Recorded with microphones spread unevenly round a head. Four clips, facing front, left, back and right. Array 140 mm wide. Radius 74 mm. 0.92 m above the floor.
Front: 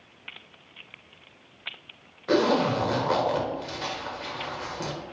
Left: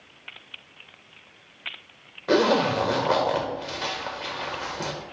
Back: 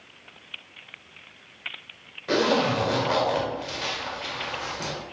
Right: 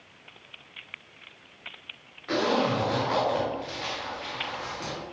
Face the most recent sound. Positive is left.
turn(degrees=80)